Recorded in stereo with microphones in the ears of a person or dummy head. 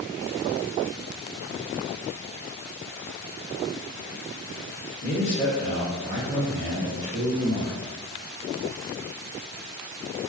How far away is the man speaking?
About 0.6 m.